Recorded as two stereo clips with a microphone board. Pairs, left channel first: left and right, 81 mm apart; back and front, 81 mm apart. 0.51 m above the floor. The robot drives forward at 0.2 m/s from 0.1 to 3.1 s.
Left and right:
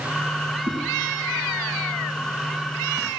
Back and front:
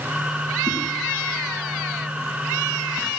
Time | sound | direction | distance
0.7 | a whoosh | 90° right | 5 m